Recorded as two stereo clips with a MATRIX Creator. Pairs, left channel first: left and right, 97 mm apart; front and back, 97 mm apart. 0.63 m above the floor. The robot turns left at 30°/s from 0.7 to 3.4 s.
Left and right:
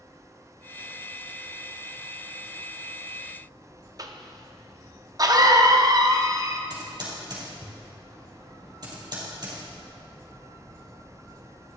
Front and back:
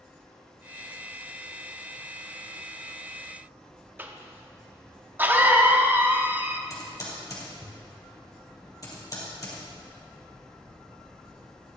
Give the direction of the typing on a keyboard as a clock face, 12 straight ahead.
2 o'clock.